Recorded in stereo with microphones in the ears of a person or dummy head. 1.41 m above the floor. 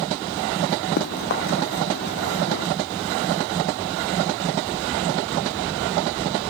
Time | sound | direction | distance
1.0 | running footsteps | 55° left (ahead or behind) | ?